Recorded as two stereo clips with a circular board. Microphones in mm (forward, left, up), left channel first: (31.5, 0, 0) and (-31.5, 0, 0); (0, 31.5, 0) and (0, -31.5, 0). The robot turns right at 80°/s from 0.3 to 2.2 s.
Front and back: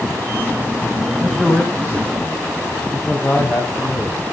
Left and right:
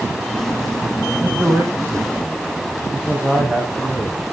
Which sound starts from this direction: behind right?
A man speaking, at 1.2 s.